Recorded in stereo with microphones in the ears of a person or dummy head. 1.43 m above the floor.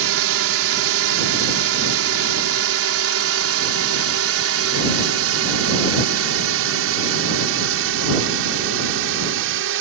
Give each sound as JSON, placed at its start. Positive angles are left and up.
{"t": 0.0, "sound": "a drone", "side_deg": -75}